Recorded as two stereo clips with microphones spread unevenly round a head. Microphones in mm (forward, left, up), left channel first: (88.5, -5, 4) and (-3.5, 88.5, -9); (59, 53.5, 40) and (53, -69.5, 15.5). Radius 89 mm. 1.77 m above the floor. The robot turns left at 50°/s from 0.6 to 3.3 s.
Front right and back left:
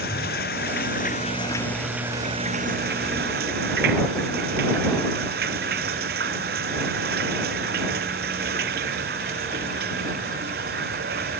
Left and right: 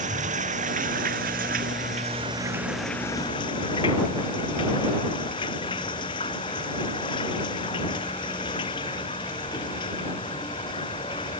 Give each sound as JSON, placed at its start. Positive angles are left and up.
{"t": 0.0, "sound": "running water", "azimuth_deg": -75}